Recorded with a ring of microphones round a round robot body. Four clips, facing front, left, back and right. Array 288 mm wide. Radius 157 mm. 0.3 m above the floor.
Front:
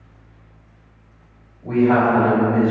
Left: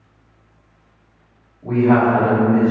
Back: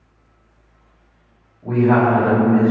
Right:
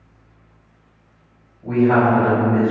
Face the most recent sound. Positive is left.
turn(degrees=145)